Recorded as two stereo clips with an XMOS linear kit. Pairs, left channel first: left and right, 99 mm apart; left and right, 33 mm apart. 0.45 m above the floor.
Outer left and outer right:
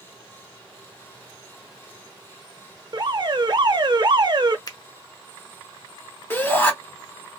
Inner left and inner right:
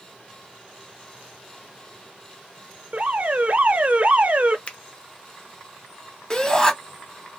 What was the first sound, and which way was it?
An alarm, 50° right (ahead or behind).